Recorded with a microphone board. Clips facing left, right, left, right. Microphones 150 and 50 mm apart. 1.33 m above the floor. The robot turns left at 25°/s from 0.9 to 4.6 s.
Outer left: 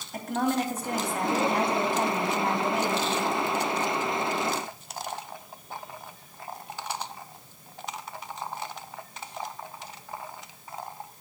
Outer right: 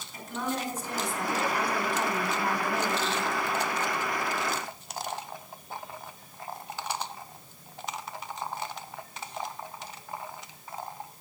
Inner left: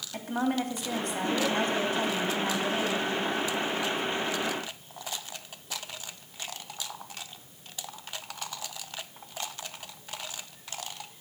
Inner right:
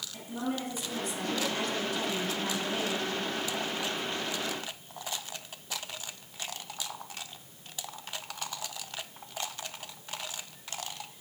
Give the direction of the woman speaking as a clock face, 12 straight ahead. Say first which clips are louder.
Outer left 6 dB, inner left 6 dB; 10 o'clock.